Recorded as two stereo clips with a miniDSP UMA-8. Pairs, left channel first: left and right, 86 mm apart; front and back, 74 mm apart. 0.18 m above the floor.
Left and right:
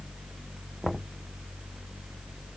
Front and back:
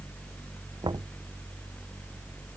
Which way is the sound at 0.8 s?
Straight behind.